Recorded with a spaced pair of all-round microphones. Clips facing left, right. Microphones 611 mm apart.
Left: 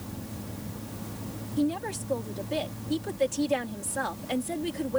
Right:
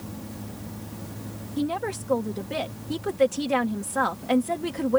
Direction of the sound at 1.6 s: 80° right.